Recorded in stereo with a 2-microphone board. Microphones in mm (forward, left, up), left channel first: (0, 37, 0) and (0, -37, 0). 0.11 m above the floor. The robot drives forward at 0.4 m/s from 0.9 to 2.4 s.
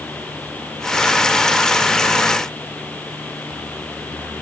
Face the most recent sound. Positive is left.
No sound to turn to.